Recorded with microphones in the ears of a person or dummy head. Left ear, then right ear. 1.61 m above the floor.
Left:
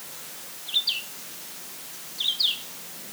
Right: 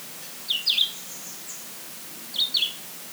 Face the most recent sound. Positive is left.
No sound to turn to.